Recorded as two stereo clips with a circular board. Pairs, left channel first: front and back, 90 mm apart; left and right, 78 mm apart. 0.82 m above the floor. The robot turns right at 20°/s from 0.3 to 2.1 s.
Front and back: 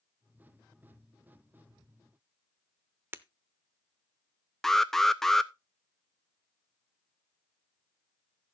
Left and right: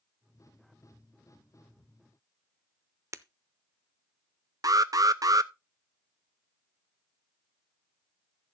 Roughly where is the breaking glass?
Behind right.